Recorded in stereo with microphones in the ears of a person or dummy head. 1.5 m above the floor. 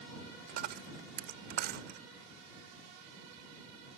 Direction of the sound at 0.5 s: 55° right (ahead or behind).